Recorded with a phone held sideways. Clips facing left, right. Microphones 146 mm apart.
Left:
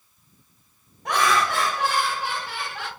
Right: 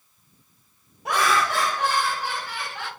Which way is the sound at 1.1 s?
10° right (ahead or behind).